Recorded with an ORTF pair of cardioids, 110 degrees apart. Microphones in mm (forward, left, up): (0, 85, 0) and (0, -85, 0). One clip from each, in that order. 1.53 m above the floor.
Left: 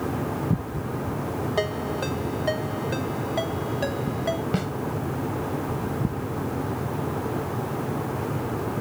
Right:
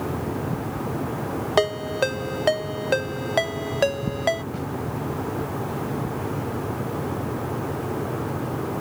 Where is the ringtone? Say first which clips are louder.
Right 7 dB; 60° right.